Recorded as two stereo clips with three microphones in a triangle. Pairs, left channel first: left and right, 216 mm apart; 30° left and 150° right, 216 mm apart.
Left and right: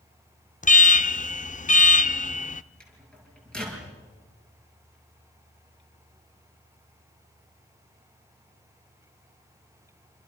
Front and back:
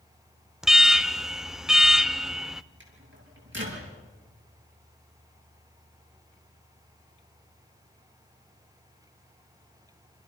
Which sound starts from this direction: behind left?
An alarm, at 0.6 s.